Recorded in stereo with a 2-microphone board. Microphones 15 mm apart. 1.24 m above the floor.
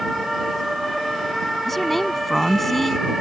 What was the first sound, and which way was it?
A woman speaking, 15° left (ahead or behind).